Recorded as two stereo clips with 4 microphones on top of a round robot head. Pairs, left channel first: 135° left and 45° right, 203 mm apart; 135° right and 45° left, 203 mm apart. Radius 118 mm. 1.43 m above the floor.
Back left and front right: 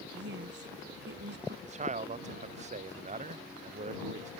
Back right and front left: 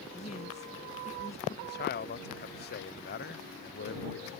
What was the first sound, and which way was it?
A woman speaking, 75° right.